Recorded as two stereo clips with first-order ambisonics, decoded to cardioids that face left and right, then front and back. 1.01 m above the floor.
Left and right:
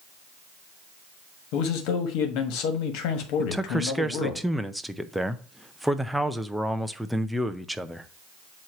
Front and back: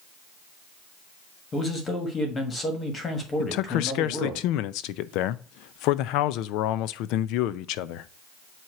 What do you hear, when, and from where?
1.5 s a man speaking: 70° left, 1.6 m
3.4 s a man speaking: straight ahead, 0.5 m